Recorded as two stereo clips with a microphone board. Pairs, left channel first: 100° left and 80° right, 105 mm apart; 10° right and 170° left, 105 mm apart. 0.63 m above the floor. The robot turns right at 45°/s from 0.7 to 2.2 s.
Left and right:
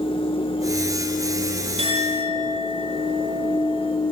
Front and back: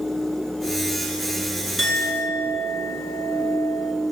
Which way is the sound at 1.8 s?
100° right.